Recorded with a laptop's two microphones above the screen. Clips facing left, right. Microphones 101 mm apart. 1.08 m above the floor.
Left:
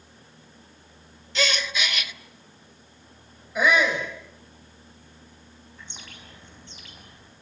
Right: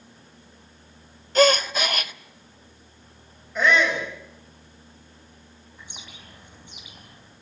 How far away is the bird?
About 4.5 m.